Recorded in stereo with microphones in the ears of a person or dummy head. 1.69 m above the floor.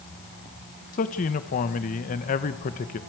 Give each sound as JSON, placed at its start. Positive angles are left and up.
{"t": 0.9, "sound": "a man speaking", "side_deg": 45, "distance_m": 1.4}